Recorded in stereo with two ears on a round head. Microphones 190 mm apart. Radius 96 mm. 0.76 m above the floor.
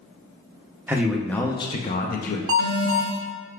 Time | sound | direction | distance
0.9 | a man speaking | 10° right (ahead or behind) | 0.6 m
2.5 | an alarm | 75° right (ahead or behind) | 1.2 m